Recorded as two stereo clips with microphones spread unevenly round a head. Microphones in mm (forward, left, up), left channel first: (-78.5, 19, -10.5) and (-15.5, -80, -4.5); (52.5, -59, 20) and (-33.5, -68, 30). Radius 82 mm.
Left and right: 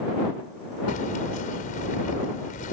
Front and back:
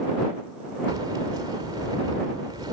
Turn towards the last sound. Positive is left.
turn(degrees=120)